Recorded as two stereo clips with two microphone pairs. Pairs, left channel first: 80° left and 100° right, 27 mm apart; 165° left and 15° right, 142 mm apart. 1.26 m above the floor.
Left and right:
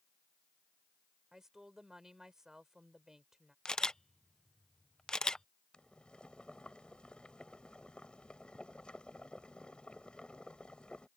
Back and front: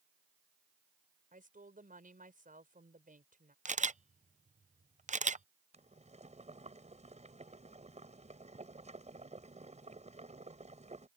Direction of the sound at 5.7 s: 25° left.